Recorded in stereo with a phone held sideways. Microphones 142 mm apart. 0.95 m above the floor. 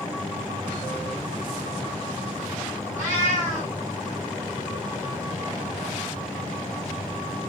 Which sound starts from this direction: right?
A cat meowing, at 3.0 s.